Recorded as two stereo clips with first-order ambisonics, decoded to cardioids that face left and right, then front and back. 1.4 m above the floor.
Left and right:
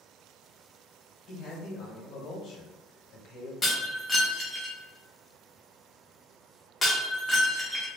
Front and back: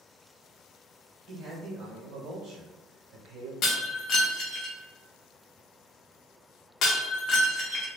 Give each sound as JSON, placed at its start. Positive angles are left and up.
{"t": 1.3, "sound": "a man speaking", "azimuth_deg": 135, "distance_m": 1.1}
{"t": 3.6, "sound": "breaking glass", "azimuth_deg": 10, "distance_m": 0.6}